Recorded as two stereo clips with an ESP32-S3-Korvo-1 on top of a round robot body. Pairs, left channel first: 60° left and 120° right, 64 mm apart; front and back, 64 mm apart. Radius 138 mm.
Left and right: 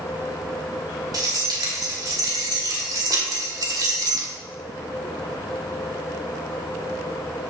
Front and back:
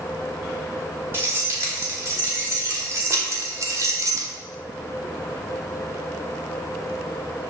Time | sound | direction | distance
1.1 | keys jangling | 125° right | 3.5 m